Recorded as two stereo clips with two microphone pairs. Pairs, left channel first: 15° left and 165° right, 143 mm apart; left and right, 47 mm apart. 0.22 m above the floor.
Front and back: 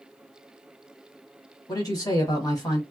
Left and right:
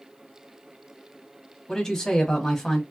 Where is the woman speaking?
25° left, 1.3 m.